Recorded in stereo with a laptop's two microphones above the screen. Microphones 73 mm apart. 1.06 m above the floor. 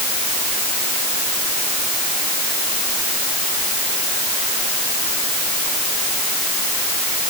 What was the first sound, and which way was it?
Only background noise.